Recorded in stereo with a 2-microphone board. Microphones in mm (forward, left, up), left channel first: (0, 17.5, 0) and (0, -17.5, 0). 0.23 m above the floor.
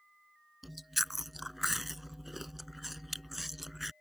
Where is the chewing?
5° right (ahead or behind).